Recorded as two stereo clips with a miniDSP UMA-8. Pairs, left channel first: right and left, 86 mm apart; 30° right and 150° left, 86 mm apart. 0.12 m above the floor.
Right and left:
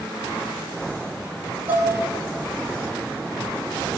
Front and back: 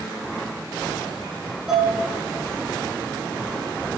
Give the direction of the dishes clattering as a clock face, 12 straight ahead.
9 o'clock.